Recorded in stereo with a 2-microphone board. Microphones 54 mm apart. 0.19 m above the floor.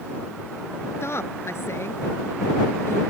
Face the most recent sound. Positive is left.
turn(degrees=55)  # may be behind; listen again after turning